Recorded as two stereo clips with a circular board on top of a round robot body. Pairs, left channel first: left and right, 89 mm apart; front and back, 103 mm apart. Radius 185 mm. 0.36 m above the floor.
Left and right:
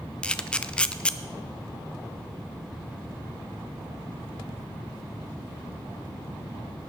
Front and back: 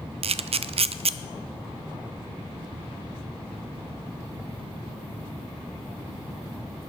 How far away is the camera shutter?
About 0.5 m.